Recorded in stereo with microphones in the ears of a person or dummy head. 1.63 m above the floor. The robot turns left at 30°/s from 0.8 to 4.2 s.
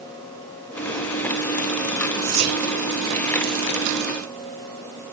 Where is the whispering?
50° right (ahead or behind), 5 m; by 2.6 s 35° right (ahead or behind), 5 m.